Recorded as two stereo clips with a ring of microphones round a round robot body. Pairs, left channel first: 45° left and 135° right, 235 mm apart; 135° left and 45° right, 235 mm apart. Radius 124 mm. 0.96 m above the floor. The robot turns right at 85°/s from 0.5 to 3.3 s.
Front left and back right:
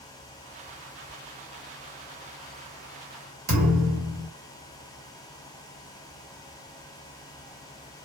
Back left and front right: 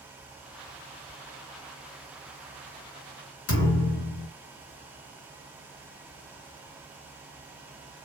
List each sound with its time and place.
3.5 s a thud: 170° left, 1.0 m